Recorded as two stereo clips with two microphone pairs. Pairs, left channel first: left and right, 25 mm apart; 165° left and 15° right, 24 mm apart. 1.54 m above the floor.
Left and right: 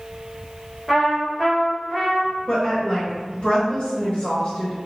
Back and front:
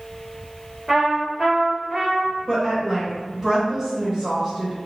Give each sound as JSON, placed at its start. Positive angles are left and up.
{"t": 0.9, "sound": "a trumpet", "azimuth_deg": -5, "distance_m": 1.5}
{"t": 2.5, "sound": "a woman speaking", "azimuth_deg": 50, "distance_m": 1.2}